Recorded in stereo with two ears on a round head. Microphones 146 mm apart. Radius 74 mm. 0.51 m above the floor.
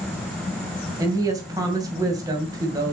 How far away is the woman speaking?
About 2.5 m.